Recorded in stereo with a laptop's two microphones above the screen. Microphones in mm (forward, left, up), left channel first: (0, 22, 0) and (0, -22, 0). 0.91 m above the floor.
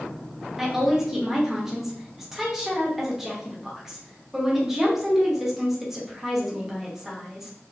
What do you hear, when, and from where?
0.6 s a woman speaking: 5° right (ahead or behind), 0.6 m